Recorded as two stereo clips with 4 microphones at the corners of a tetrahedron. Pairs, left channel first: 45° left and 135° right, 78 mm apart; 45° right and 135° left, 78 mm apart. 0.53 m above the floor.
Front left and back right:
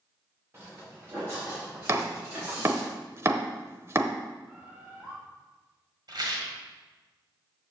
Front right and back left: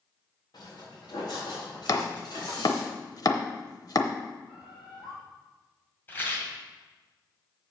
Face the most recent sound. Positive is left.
turn(degrees=-110)